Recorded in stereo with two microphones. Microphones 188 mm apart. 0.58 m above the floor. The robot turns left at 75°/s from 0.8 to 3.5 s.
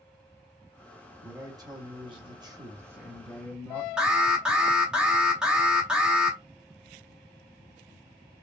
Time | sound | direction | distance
1.2 | a man speaking | 10° right (ahead or behind) | 0.9 m
4.0 | an alarm | 5° right (ahead or behind) | 0.8 m